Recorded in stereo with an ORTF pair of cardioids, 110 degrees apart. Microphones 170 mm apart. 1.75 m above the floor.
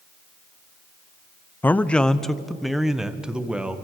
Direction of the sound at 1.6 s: 10° left.